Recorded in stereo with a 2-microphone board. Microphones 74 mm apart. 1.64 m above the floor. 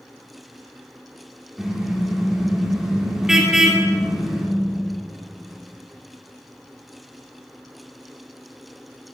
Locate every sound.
1.6 s a car horn: 10° right (ahead or behind), 2.5 m